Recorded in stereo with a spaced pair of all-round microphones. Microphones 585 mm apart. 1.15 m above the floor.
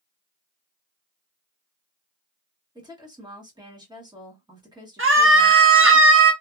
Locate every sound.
2.8 s a woman speaking: 5° right (ahead or behind), 1.2 m
5.0 s a scream: 20° right (ahead or behind), 0.7 m